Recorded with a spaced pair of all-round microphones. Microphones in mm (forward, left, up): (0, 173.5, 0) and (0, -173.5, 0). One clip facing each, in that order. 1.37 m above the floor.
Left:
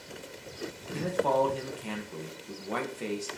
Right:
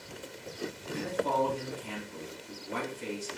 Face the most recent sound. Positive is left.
turn(degrees=75)  # may be behind; listen again after turning